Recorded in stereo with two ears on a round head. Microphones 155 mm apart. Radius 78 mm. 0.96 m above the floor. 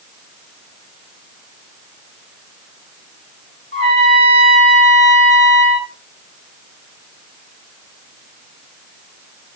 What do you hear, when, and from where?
3.7 s a trumpet: 35° right (ahead or behind), 8.5 m